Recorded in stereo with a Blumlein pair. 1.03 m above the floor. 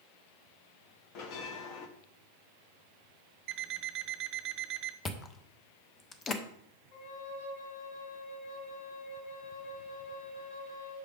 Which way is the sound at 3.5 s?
30° right.